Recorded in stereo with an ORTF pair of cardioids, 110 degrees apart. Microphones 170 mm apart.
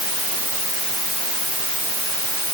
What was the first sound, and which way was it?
Only background noise.